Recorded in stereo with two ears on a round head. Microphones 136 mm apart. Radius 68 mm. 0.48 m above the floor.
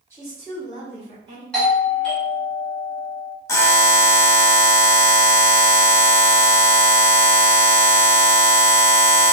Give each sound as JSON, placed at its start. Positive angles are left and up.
{"t": 0.1, "sound": "a woman speaking", "side_deg": -20, "distance_m": 1.5}
{"t": 1.5, "sound": "a doorbell", "side_deg": 5, "distance_m": 1.6}
{"t": 3.5, "sound": "a buzzer", "side_deg": 20, "distance_m": 0.8}